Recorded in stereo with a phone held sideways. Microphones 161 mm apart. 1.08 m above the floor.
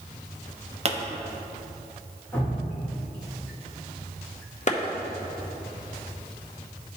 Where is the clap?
45° left (ahead or behind), 0.8 m.